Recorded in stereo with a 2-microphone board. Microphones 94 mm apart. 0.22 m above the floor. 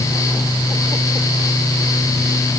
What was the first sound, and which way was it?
Only background noise.